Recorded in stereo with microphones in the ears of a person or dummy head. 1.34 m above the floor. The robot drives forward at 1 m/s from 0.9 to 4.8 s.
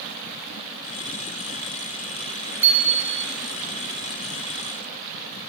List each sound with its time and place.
2.6 s a bicycle bell: 10° right (ahead or behind), 3 m; by 3.2 s 15° right (ahead or behind), 2 m